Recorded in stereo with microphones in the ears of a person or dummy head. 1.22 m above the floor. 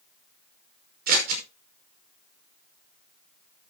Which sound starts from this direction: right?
Scissors, at 1.1 s.